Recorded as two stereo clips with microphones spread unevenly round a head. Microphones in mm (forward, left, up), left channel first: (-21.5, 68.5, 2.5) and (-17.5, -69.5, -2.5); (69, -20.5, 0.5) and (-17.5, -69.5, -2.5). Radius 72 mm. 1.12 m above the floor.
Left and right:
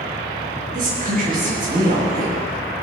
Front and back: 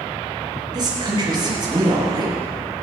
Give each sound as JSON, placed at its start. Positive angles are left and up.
{"t": 0.7, "sound": "a woman speaking", "azimuth_deg": -110, "distance_m": 5.5}